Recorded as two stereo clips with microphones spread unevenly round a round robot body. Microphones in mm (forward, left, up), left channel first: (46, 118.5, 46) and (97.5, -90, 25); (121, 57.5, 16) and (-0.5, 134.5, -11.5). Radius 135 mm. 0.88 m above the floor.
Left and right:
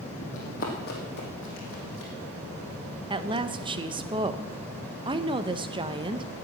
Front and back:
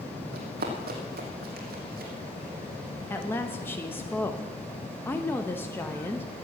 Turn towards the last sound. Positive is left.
turn(degrees=-115)